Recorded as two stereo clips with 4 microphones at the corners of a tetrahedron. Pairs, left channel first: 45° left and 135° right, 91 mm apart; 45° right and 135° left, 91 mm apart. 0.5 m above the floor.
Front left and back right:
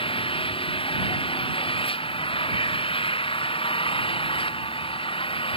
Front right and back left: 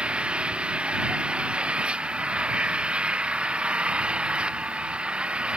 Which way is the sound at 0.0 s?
55° left.